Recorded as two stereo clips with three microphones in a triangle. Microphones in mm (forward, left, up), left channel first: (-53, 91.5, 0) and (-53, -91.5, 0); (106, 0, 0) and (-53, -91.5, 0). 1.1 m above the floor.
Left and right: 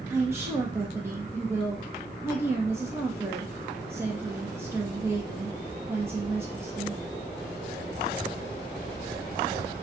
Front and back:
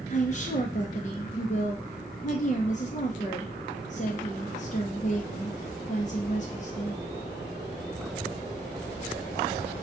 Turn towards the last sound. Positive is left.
turn(degrees=-15)